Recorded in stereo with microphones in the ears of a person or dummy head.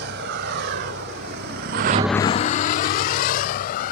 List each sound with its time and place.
0.0 s a vehicle: 55° right (ahead or behind); by 3.9 s 50° left (ahead or behind)